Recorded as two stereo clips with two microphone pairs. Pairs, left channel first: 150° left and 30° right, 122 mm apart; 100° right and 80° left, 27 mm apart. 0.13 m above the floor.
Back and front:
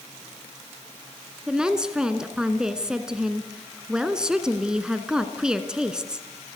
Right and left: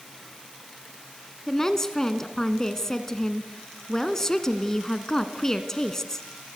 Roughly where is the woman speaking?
Right.